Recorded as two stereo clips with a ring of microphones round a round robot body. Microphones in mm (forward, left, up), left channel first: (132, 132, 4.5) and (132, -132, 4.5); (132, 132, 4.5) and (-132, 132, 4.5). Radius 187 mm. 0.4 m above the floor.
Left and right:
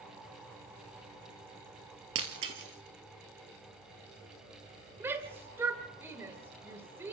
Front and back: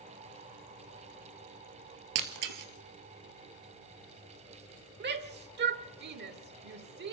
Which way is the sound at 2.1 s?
150° right.